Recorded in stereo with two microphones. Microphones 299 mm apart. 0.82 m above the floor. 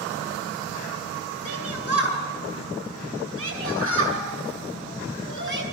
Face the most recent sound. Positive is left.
turn(degrees=-40)  # may be behind; listen again after turning